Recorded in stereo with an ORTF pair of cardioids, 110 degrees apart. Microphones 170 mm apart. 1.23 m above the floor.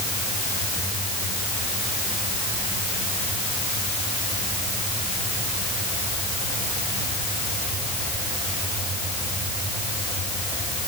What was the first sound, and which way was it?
Only background noise.